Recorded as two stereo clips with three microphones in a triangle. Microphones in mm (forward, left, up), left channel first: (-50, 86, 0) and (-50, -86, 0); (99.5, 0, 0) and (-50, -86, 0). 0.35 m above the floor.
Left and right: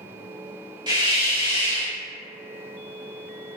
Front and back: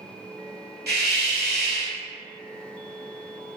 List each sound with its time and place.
0.9 s a hiss: 155° right, 0.9 m